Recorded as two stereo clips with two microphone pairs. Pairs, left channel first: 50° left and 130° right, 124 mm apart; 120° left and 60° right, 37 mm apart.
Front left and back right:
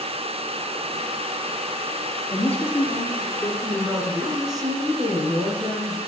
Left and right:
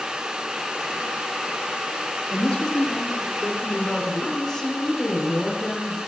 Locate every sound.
2.3 s a woman speaking: 45° left, 1.7 m; by 3.5 s 70° left, 1.7 m
3.6 s a woman speaking: 165° right, 1.2 m